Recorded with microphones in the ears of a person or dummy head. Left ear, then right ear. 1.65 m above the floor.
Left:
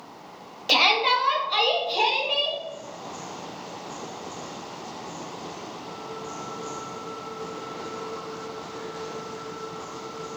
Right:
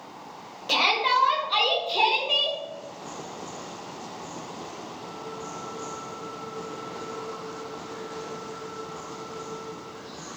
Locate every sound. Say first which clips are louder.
0.7 s a shout: left 2 dB; 10° left (ahead or behind), 0.8 m; by 2.6 s 25° right (ahead or behind), 1.6 m